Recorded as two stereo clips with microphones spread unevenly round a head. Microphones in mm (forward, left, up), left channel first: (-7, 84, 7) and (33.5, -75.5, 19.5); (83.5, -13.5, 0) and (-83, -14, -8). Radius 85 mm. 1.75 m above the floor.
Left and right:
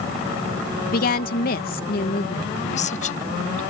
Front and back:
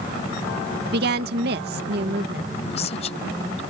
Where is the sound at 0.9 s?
145° left.